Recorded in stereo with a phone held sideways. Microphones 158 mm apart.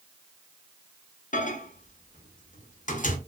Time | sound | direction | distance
1.3 | a microwave | 55° left (ahead or behind) | 0.5 m